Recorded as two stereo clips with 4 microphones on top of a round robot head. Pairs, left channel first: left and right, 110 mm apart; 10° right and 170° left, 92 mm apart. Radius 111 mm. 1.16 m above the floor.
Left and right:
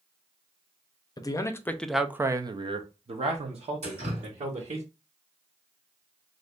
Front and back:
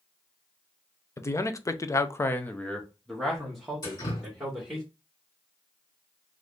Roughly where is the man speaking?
Ahead left.